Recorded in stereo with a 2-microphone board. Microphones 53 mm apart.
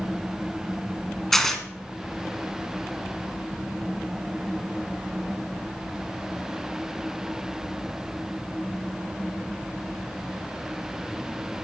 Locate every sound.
1.3 s tearing paper: 5° left (ahead or behind), 0.9 m